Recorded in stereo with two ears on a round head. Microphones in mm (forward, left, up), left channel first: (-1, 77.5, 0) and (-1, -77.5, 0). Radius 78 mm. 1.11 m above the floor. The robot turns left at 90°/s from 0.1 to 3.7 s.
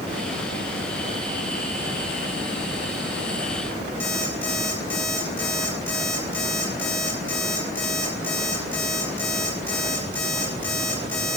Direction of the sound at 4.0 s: 10° left (ahead or behind).